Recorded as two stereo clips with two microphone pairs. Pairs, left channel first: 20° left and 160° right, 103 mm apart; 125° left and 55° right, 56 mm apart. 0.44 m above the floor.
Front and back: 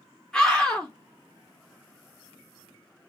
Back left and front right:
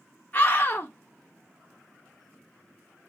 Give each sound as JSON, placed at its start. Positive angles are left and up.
{"t": 0.3, "sound": "a scream", "azimuth_deg": 100, "distance_m": 0.8}